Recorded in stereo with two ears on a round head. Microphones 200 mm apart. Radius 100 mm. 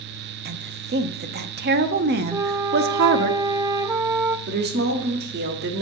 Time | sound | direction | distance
0.5 | a woman speaking | 45° right (ahead or behind) | 0.7 m
2.3 | a flute | 15° right (ahead or behind) | 0.6 m
4.5 | a woman speaking | 45° right (ahead or behind) | 1.1 m